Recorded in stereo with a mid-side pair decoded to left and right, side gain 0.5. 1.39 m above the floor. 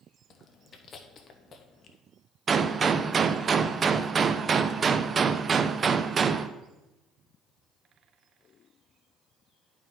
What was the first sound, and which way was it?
Chewing, 50° left.